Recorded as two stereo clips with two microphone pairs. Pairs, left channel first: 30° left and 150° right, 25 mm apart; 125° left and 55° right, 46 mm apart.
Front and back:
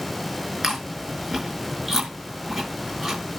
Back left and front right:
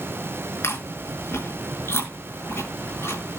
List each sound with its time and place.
0.6 s chewing: 135° left, 5.5 m